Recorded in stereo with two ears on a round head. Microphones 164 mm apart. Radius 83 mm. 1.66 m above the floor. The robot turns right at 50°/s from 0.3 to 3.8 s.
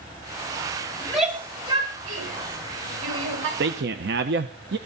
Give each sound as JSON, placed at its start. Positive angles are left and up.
{"t": 1.0, "sound": "a shout", "side_deg": 5, "distance_m": 7.5}
{"t": 3.6, "sound": "a man speaking", "side_deg": -60, "distance_m": 1.0}